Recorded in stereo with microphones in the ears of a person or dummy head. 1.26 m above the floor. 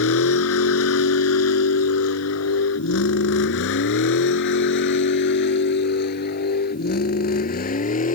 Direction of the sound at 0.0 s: 80° left.